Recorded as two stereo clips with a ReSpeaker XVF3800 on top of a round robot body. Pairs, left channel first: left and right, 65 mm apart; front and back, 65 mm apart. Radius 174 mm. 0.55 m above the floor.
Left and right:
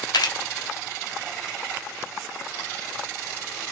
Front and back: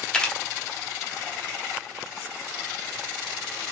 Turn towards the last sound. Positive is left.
turn(degrees=80)